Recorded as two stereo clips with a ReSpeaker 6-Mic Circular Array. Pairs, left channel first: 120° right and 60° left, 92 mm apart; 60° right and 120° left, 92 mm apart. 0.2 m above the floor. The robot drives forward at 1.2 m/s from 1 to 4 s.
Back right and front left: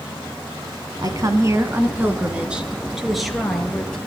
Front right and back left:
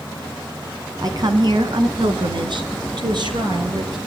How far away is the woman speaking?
About 2 m.